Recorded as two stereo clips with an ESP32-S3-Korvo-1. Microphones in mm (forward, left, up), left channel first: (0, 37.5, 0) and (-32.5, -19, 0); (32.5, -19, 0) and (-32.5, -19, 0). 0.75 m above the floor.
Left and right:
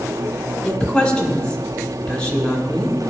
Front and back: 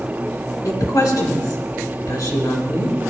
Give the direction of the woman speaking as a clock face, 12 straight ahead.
12 o'clock.